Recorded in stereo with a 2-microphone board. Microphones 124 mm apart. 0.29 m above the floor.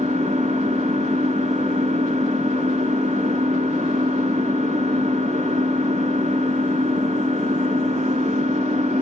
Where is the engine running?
70° right (ahead or behind), 0.8 m.